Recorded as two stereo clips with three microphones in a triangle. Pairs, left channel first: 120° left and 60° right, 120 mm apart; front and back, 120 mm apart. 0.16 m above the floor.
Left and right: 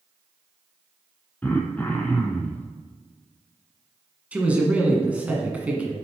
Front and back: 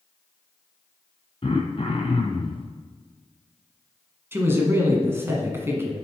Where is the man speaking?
130° right, 1.3 m.